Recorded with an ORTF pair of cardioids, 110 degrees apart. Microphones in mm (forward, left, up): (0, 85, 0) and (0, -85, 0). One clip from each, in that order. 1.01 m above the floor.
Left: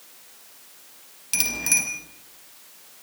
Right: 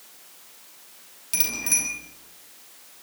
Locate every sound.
1.3 s a bicycle bell: 25° left, 5 m